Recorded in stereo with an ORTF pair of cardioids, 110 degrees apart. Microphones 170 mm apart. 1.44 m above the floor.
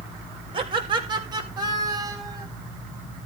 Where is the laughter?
30° right, 7.5 m; by 2.5 s 20° right, 10 m.